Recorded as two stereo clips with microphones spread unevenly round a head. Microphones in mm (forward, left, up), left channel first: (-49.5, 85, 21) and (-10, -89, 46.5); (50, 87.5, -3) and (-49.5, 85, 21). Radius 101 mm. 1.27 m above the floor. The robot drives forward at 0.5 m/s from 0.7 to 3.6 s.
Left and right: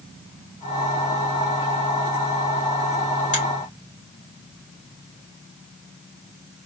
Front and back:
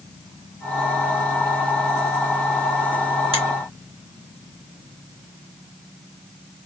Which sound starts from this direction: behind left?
A finger snap, at 3.3 s.